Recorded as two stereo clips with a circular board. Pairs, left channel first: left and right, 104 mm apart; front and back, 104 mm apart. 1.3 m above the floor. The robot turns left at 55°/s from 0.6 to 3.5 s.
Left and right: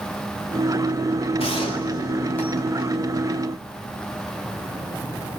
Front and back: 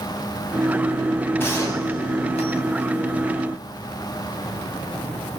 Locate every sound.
1.4 s a gunshot: 70° left, 5.5 m; by 2.9 s 10° right, 5.5 m